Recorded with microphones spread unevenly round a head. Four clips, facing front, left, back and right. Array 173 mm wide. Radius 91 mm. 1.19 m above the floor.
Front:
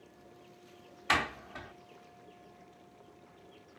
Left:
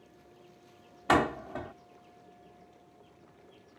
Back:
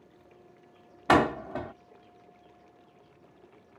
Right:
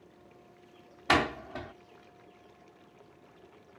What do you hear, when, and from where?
1.1 s a door slam: 165° left